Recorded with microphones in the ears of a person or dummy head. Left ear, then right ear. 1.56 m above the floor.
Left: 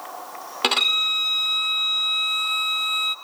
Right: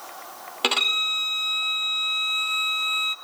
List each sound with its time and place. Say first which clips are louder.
0.6 s a violin: left 2 dB; 5° left (ahead or behind), 1.1 m